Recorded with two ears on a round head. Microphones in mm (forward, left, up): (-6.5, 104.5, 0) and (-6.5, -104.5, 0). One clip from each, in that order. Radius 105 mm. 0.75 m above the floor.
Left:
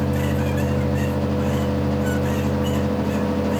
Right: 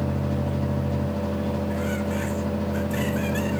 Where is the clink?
I don't hear a clink.